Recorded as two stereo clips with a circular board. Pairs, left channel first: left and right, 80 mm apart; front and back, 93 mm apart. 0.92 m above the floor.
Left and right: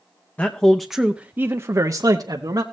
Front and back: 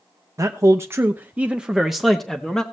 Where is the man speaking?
150° left, 0.7 m; by 2.6 s 85° right, 1.0 m.